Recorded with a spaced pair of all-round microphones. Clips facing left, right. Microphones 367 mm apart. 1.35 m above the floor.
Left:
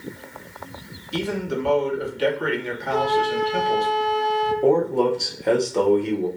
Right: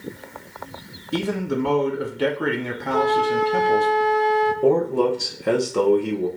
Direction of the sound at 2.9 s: 65° right (ahead or behind).